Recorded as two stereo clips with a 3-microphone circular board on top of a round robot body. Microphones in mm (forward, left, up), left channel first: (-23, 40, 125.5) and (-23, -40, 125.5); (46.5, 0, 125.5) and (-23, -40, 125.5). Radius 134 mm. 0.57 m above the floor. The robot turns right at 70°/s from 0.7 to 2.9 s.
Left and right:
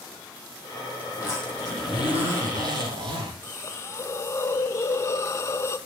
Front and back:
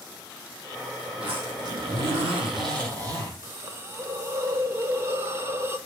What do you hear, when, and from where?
1.1 s a zipper: 125° left, 5.5 m; by 3.3 s 110° right, 5.5 m
3.4 s a hiss: 150° left, 0.6 m